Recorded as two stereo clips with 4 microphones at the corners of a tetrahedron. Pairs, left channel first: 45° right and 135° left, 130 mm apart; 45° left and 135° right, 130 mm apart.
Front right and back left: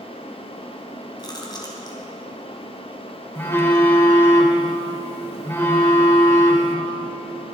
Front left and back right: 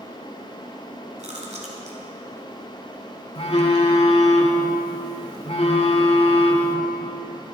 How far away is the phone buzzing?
About 1.9 m.